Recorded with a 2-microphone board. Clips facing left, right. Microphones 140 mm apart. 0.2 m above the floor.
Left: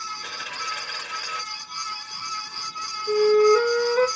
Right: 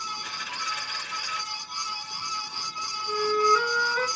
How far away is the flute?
About 2.5 m.